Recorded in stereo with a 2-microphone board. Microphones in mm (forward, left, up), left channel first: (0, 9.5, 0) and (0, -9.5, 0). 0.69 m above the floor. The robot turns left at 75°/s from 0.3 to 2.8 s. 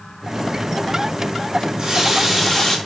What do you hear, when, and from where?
1.6 s a running tap: 125° right, 4.5 m; by 2.8 s 150° left, 4.5 m